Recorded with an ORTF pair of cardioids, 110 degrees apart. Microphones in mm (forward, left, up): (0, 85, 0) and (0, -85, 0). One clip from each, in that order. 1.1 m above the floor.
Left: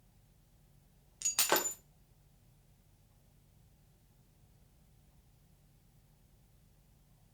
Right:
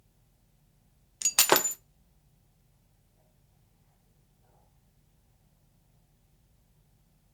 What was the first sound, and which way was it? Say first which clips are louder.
Breaking glass: right 8 dB; 45° right.